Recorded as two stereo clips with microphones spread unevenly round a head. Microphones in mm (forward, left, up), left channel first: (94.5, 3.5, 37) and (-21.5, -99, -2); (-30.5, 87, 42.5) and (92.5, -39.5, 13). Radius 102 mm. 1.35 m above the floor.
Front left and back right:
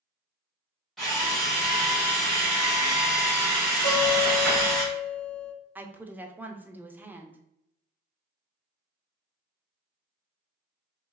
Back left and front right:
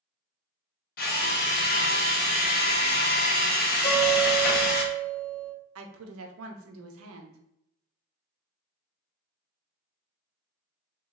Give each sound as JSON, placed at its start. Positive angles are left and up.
{"t": 1.0, "sound": "a drill", "azimuth_deg": 125, "distance_m": 0.8}
{"t": 3.8, "sound": "a guitar", "azimuth_deg": 105, "distance_m": 1.8}
{"t": 5.8, "sound": "a woman speaking", "azimuth_deg": -55, "distance_m": 0.7}